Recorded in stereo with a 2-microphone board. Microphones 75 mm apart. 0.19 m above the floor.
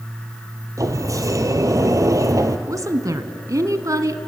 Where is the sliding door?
45° right (ahead or behind), 1.3 m.